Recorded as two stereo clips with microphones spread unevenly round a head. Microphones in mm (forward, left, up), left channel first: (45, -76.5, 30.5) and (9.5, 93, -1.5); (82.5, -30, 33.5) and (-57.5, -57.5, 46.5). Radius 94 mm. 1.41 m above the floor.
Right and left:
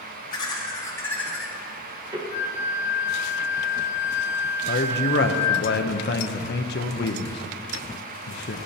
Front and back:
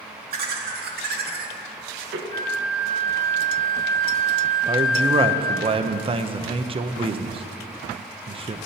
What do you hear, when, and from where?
0.3 s laughter: 150° right, 2.5 m; by 2.2 s 165° left, 1.3 m
2.3 s a flute: 50° right, 1.6 m
4.7 s a man speaking: 115° right, 0.8 m